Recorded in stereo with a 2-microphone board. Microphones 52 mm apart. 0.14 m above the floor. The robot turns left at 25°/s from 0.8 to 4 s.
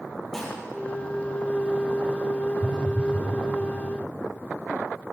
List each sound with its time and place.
0.3 s dishes clattering: 5° left (ahead or behind), 3 m
2.6 s a phone buzzing: 10° right (ahead or behind), 1.5 m; by 3.3 s 15° right (ahead or behind), 1.5 m